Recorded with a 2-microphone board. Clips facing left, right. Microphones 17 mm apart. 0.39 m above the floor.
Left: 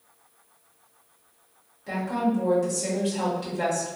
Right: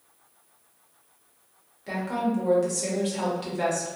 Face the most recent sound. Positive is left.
turn(degrees=-15)  # may be behind; listen again after turning